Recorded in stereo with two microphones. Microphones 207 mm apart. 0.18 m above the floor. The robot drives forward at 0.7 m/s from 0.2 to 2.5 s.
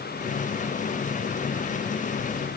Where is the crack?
I don't hear a crack.